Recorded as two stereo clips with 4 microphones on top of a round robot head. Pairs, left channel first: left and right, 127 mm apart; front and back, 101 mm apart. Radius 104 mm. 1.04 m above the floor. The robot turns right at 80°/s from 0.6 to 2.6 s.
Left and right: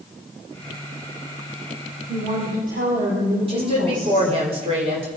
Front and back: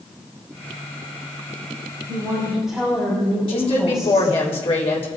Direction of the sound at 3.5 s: 40° right.